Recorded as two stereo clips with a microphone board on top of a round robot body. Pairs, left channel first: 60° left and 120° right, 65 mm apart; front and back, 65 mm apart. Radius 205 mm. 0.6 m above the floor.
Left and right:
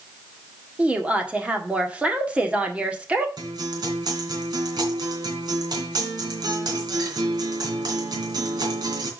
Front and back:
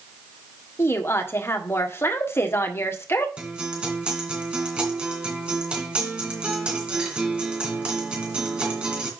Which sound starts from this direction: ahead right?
A woman speaking, at 0.8 s.